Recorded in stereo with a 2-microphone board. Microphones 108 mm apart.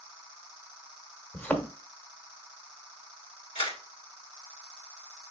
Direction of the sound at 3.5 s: 50° left (ahead or behind).